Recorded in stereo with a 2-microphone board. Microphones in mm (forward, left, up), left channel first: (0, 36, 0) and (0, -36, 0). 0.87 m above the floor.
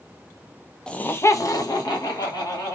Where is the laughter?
10° left (ahead or behind), 0.5 m; by 2.8 s 70° left (ahead or behind), 1.6 m.